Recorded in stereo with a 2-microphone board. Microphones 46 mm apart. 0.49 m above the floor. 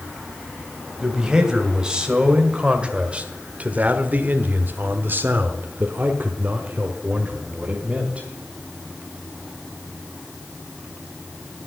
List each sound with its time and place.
1.0 s a man speaking: 15° right (ahead or behind), 2.5 m; by 8.3 s 25° right (ahead or behind), 2 m